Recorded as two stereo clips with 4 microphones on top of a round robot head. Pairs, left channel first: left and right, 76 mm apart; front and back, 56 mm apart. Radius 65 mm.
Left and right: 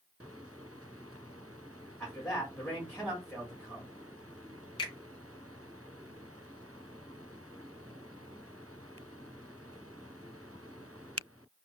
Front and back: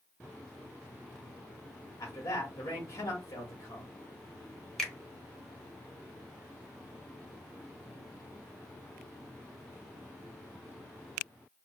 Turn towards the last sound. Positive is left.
turn(degrees=85)